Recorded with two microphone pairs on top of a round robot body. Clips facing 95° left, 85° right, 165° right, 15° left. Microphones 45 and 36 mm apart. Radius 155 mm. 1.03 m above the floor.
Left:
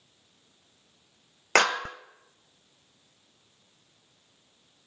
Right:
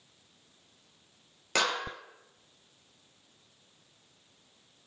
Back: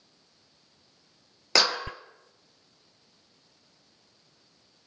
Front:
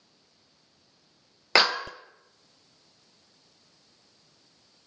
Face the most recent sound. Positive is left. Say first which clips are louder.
# left 7 dB, front 3 dB
turn(degrees=70)